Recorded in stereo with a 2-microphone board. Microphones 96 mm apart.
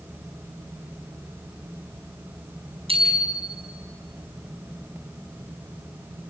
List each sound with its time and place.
2.9 s a bicycle bell: 75° right (ahead or behind), 4.5 m